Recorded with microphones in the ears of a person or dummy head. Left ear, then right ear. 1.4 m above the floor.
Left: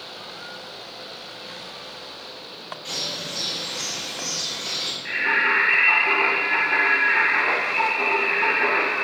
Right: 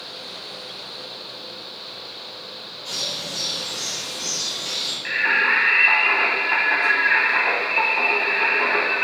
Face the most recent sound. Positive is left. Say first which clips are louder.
# right 2 dB
turn(degrees=-80)